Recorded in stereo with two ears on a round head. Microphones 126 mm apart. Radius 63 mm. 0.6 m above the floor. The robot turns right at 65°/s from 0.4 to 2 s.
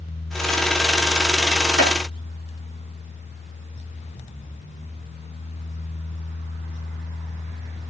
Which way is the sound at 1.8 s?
80° right.